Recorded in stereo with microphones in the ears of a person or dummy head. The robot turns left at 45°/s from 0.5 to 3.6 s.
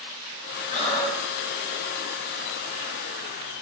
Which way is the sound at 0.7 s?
30° left (ahead or behind).